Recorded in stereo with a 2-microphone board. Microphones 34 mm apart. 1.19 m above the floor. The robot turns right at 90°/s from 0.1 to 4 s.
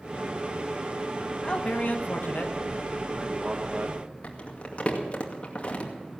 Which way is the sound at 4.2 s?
40° left (ahead or behind).